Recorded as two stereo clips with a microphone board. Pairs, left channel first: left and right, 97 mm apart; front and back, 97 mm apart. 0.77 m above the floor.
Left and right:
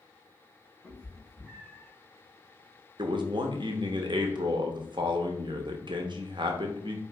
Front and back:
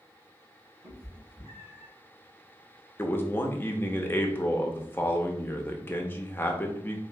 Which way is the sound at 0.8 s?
170° left.